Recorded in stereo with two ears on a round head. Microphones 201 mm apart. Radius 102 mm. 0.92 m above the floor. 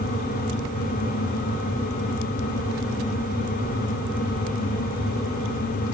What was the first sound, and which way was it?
Only background noise.